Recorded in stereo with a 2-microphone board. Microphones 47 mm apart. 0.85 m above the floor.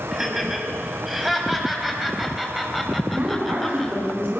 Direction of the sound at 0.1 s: 5° right (ahead or behind).